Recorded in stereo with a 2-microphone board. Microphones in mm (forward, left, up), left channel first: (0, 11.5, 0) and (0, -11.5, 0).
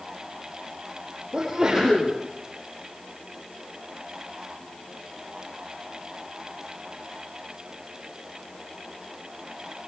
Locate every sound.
1.3 s a sneeze: 25° right (ahead or behind), 7.5 m